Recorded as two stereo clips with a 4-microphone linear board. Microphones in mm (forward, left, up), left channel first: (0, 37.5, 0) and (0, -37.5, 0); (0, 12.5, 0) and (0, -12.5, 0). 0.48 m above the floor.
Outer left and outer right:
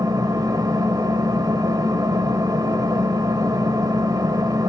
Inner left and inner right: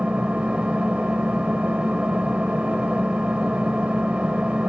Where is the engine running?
60° right (ahead or behind), 1.9 m.